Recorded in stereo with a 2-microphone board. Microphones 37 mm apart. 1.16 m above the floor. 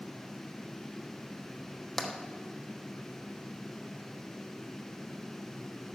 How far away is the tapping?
About 1.1 m.